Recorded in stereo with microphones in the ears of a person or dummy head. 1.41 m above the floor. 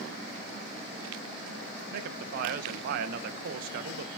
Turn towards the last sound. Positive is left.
turn(degrees=-55)  # may be behind; listen again after turning